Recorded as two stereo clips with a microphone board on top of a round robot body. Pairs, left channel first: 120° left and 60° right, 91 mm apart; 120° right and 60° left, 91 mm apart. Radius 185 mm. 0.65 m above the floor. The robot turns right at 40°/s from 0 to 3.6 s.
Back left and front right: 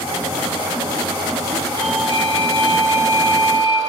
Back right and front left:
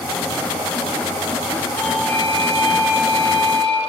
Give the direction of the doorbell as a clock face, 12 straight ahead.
2 o'clock.